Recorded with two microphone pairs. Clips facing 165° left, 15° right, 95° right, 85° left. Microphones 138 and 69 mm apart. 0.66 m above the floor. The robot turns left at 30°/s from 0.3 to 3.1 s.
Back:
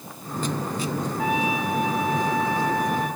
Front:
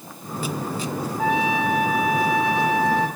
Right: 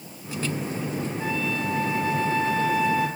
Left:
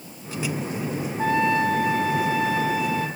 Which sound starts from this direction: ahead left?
A trumpet, at 1.2 s.